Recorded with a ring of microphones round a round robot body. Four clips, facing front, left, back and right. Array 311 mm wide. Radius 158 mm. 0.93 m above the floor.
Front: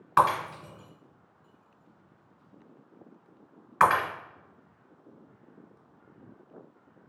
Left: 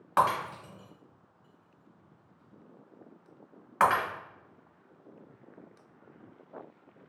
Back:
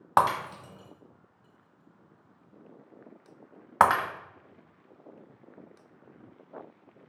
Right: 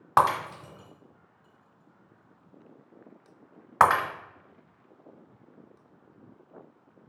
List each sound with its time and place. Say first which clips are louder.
0.2 s breaking glass: right 4 dB, front 1 dB; 150° right, 1.3 m